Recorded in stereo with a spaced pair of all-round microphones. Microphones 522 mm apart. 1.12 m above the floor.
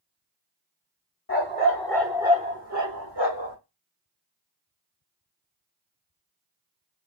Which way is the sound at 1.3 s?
25° left (ahead or behind).